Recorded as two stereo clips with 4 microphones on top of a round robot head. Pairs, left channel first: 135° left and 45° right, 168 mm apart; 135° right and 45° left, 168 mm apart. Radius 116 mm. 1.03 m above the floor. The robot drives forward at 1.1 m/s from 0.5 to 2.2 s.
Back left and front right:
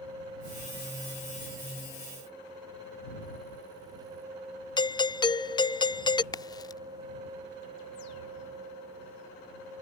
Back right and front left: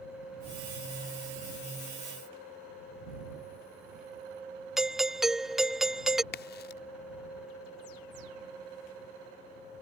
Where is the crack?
160° right.